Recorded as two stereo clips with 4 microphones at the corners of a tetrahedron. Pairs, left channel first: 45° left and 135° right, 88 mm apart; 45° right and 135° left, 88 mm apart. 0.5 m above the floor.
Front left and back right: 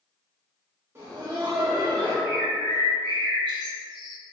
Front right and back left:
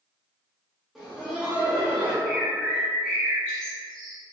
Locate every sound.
0.9 s laughter: 140° right, 0.7 m; by 2.1 s 135° right, 1.5 m
2.2 s a bird: 125° right, 1.0 m